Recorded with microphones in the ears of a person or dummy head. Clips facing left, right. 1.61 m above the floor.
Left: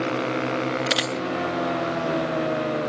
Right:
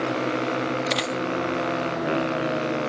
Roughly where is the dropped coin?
Centre.